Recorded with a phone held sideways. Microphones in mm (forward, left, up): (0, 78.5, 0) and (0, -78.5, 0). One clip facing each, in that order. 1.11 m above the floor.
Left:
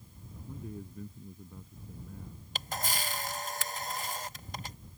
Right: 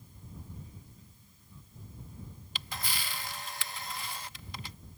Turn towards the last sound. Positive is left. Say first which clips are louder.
# left 5 dB
turn(degrees=45)  # may be behind; listen again after turning